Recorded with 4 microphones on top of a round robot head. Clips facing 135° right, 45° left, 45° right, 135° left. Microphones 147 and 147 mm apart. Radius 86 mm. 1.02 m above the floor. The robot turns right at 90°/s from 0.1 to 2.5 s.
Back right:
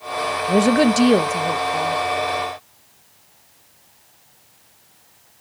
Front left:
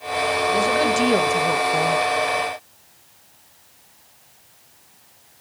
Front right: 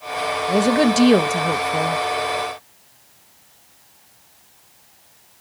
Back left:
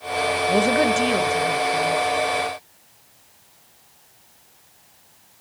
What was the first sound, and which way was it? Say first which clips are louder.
A woman speaking: back right 7 dB, front right 3 dB; 135° right.